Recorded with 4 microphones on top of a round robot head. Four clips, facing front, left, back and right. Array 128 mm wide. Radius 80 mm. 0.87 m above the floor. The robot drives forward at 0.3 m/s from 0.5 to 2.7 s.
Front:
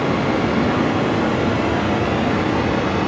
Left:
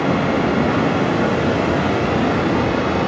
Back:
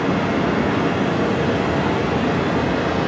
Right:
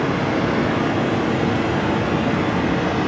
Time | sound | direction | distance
0.0 | running water | 80° left | 2 m